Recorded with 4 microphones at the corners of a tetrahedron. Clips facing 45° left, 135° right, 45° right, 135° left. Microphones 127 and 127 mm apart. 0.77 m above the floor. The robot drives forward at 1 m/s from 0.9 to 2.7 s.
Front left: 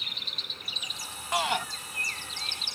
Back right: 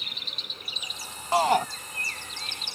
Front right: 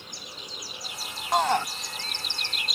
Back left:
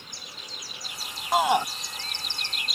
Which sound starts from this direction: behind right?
A shout, at 1.3 s.